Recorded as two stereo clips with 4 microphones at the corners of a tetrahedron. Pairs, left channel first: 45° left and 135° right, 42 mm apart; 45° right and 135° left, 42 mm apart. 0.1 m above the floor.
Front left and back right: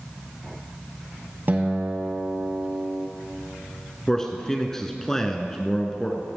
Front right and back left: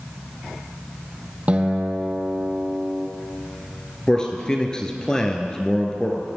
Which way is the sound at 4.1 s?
10° right.